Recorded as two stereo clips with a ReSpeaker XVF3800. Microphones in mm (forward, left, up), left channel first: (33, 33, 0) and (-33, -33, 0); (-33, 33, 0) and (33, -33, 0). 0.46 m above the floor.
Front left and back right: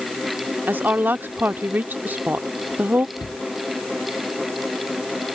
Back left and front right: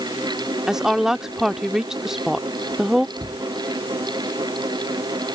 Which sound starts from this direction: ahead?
A cupboard door, at 3.2 s.